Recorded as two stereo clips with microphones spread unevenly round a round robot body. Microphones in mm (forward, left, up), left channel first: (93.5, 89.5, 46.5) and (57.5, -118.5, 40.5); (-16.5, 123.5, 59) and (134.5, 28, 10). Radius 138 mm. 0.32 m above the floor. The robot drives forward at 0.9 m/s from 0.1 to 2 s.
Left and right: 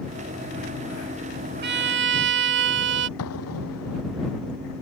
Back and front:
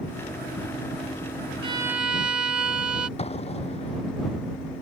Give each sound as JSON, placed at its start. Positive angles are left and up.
{"t": 1.6, "sound": "a violin", "azimuth_deg": -75}
{"t": 3.2, "sound": "an explosion", "azimuth_deg": 95}